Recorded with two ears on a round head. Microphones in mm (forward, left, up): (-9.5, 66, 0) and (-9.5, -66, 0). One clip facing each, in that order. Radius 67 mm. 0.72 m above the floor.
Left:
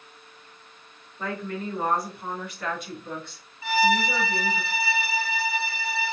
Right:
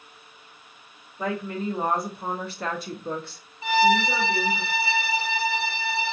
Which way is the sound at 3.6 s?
20° right (ahead or behind).